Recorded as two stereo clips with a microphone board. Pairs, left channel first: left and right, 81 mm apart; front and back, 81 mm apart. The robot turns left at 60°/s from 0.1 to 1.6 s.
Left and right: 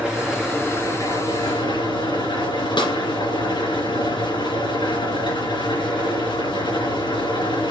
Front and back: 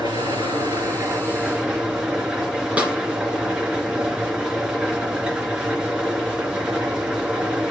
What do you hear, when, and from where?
0.0 s an engine running: 170° right, 4 m; by 7.7 s 100° left, 4 m
2.8 s a snare drum: 105° left, 1.9 m